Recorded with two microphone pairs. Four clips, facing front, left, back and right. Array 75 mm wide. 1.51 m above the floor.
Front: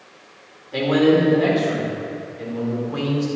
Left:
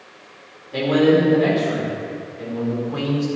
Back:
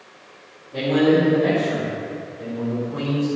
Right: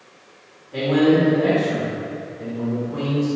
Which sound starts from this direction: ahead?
A man speaking, at 0.7 s.